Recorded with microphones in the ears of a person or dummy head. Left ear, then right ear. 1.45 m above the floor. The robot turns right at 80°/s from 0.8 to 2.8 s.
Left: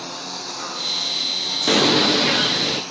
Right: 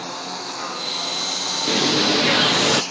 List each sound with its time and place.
0.0 s a lawn mower: 10° right (ahead or behind); by 2.9 s 15° right (ahead or behind)
1.7 s a bird: 135° left; by 2.8 s 135° right